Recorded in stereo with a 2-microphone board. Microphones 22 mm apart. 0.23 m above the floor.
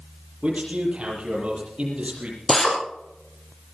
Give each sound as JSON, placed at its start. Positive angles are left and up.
{"t": 0.4, "sound": "a man speaking", "side_deg": -60, "distance_m": 7.0}
{"t": 2.5, "sound": "a drill", "side_deg": 15, "distance_m": 4.0}